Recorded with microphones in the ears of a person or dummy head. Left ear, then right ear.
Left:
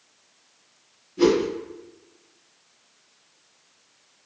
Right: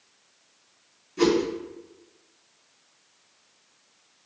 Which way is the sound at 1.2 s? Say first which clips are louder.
Left 2 dB; 55° right (ahead or behind).